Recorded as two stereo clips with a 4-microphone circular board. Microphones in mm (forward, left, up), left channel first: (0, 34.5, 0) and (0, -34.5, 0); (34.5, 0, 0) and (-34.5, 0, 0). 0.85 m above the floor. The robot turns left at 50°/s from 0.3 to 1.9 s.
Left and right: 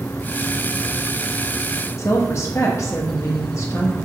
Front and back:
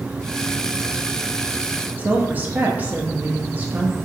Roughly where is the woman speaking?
Behind left.